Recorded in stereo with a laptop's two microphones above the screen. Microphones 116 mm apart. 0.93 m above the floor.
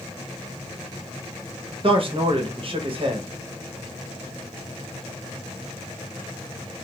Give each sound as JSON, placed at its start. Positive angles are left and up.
{"t": 1.8, "sound": "a man speaking", "side_deg": -50, "distance_m": 0.8}